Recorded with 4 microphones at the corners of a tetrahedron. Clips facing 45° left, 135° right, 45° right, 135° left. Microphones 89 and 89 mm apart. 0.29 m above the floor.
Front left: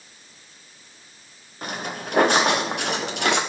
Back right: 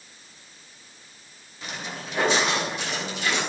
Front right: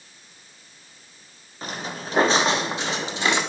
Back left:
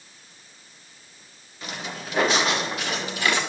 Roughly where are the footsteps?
Ahead.